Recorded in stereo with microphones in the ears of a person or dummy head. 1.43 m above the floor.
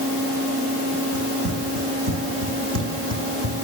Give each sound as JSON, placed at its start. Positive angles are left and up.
{"t": 1.1, "sound": "running footsteps", "side_deg": -65, "distance_m": 6.0}